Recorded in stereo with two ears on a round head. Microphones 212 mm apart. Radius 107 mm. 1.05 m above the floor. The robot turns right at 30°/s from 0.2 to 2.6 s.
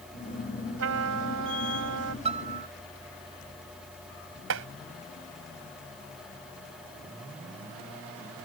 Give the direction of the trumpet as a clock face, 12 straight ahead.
4 o'clock.